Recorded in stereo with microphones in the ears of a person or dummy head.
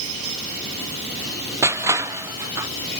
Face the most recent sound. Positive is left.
turn(degrees=-15)  # may be behind; listen again after turning